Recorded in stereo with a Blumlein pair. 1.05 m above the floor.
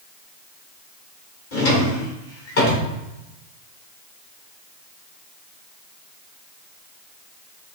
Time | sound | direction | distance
1.5 | a drawer | 50° left | 1.9 m